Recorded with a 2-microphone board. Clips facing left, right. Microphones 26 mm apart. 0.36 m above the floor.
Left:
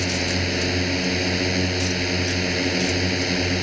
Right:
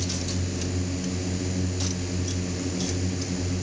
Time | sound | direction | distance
0.0 | a drone | 60° left (ahead or behind) | ?